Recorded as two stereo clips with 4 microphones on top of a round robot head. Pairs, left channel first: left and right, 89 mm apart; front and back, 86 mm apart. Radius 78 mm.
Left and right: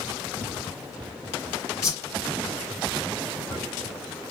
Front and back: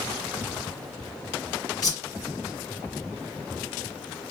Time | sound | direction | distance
1.8 | a whoosh | 40° left | 2.0 m